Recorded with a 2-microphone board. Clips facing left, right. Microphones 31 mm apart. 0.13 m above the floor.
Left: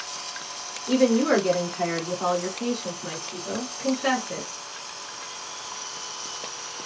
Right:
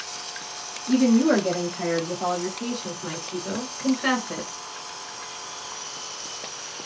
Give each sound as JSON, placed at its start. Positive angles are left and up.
{"t": 0.9, "sound": "a woman speaking", "side_deg": 30, "distance_m": 1.9}